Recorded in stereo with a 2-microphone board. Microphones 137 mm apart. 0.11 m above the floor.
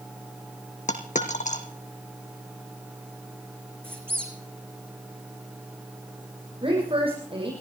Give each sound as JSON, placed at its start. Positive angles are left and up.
{"t": 0.9, "sound": "a dropped coin", "side_deg": 65, "distance_m": 2.0}
{"t": 3.8, "sound": "a squeak", "side_deg": -15, "distance_m": 3.0}
{"t": 6.6, "sound": "a woman speaking", "side_deg": -40, "distance_m": 6.0}